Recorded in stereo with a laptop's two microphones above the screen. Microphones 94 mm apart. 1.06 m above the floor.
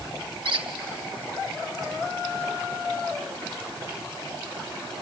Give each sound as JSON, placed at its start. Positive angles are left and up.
{"t": 0.5, "sound": "a squeak", "side_deg": -60, "distance_m": 1.1}